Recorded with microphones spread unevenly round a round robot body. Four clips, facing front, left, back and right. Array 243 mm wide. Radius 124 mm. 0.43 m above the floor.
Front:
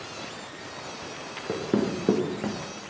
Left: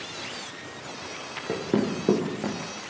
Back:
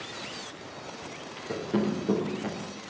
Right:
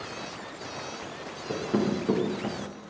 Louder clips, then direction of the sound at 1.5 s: Left 1 dB, front 2 dB; 40° left.